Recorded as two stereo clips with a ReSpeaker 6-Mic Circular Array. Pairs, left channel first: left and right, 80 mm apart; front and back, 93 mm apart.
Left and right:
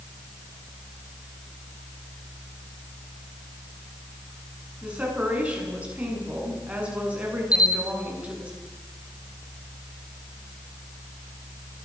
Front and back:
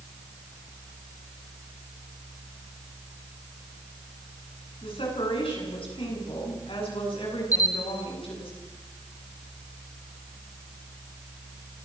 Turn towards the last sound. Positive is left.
turn(degrees=50)